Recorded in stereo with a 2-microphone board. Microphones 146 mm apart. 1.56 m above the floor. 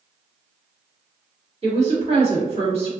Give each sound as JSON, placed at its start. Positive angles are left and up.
{"t": 1.6, "sound": "a woman speaking", "side_deg": -45, "distance_m": 1.4}